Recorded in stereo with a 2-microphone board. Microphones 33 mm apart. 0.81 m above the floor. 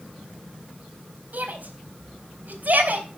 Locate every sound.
1.3 s a shout: 60° right (ahead or behind), 4 m